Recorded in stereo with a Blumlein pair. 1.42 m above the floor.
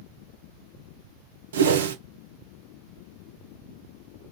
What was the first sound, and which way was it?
A whoosh, 65° right.